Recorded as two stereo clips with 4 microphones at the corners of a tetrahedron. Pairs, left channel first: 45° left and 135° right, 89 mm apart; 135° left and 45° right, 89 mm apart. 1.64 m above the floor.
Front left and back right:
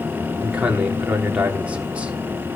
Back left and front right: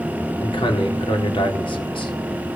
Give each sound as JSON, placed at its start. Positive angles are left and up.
{"t": 0.4, "sound": "a man speaking", "azimuth_deg": 150, "distance_m": 3.5}